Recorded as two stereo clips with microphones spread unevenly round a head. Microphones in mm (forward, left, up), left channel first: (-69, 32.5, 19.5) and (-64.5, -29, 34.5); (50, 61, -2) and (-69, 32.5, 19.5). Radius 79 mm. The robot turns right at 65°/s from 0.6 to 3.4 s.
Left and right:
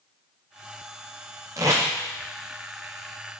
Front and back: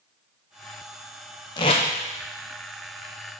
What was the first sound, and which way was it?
Tape being pulled, 55° right.